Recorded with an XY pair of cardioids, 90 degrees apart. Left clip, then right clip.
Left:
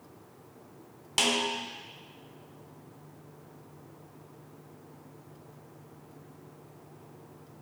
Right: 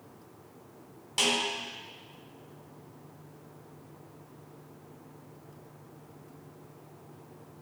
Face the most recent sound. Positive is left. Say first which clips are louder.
# left 1 dB
turn(degrees=55)